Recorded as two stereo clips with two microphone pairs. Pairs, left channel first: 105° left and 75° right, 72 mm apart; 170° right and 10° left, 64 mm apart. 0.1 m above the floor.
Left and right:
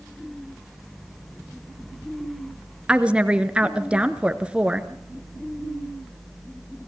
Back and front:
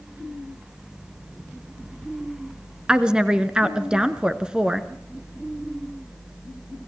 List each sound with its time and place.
2.9 s a woman speaking: 40° right, 1.1 m